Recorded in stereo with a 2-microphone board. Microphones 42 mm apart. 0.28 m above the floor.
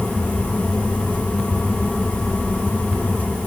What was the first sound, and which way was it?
Only background noise.